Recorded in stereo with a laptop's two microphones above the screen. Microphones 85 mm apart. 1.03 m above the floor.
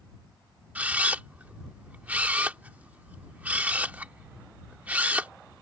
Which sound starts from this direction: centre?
A camera shutter, at 0.8 s.